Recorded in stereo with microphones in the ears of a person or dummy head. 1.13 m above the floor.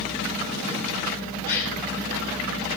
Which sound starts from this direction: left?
A gasp, at 1.4 s.